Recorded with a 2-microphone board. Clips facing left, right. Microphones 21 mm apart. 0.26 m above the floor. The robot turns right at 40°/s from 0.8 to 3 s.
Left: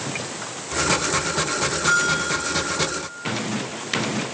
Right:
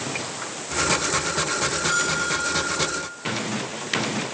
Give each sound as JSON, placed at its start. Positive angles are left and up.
{"t": 1.9, "sound": "a bell", "azimuth_deg": 90, "distance_m": 6.5}